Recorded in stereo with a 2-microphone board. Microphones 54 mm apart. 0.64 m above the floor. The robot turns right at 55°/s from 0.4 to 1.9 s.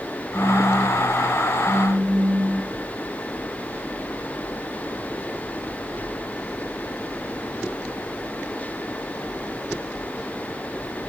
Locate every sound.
0.3 s a phone buzzing: 165° left, 5.5 m; by 2.7 s 115° right, 5.5 m